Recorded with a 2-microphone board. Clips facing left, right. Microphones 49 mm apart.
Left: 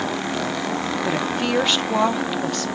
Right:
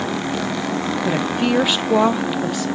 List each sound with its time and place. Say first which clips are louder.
1.0 s a woman speaking: right 4 dB; 10° right (ahead or behind), 0.9 m